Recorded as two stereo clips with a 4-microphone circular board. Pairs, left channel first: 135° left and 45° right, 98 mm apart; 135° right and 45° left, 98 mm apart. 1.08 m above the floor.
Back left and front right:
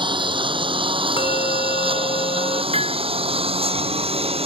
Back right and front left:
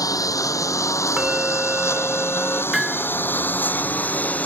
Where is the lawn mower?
80° right; by 4.5 s 60° right.